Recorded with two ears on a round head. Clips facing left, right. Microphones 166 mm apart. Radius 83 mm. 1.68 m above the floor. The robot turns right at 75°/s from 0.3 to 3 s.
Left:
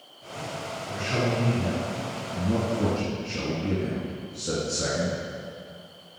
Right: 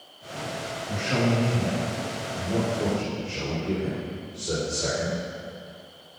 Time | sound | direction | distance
0.9 | a man speaking | 55° right | 2.5 m